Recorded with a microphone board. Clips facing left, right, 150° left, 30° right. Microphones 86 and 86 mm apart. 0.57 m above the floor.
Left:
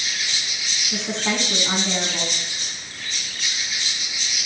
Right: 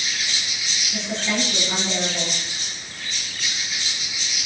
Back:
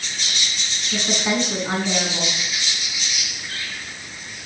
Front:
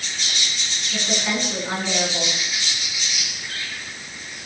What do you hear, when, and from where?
0.9 s a woman speaking: 85° left, 7 m